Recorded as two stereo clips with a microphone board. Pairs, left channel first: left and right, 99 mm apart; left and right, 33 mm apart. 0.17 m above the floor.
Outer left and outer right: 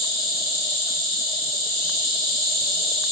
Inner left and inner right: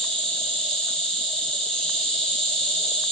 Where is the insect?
10° left (ahead or behind), 2.5 m.